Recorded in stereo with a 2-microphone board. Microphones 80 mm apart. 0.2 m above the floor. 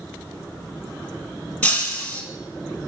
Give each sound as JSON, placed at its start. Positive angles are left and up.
{"t": 1.6, "sound": "breaking glass", "side_deg": 15, "distance_m": 1.5}